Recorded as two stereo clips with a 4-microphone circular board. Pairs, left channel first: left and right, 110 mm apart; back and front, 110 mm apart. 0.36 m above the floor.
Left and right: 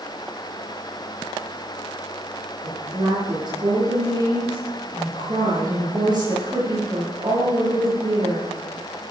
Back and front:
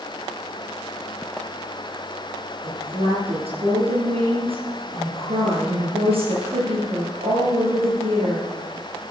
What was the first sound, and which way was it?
A woman speaking, 40° right.